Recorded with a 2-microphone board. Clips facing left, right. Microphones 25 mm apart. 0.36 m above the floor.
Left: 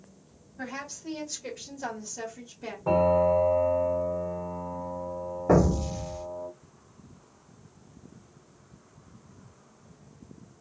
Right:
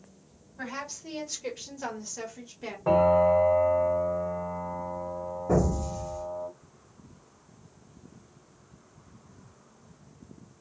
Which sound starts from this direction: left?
An explosion, at 5.5 s.